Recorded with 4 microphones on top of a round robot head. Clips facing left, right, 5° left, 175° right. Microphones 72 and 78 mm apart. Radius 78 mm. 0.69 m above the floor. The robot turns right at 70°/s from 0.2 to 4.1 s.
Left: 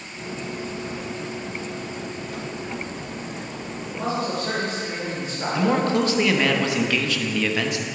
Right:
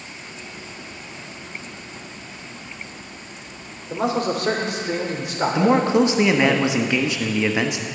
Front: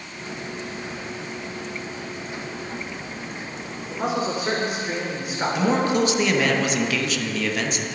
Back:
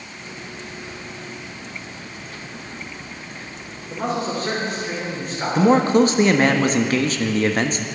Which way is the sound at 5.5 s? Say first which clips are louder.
Right 4 dB, back 7 dB; 150° right.